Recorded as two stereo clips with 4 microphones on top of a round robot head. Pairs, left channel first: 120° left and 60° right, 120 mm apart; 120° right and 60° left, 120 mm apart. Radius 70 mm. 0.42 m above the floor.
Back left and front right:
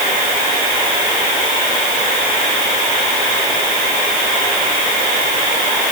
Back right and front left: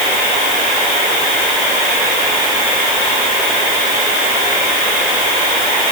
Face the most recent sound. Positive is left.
No sound to turn to.